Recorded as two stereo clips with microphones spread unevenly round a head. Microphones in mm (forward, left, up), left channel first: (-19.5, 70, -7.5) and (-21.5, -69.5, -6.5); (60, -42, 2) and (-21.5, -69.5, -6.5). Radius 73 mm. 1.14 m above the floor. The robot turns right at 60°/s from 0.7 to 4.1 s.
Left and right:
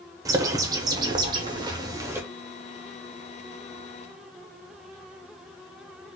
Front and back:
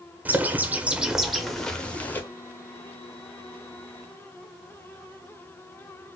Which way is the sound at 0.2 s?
125° right.